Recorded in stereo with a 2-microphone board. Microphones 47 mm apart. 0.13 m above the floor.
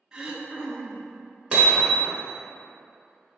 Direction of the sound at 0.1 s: 20° right (ahead or behind).